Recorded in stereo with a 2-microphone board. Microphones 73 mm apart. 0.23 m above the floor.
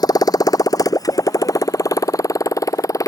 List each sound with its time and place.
0.0 s a motorcycle: 60° left (ahead or behind); by 3.1 s 45° left (ahead or behind)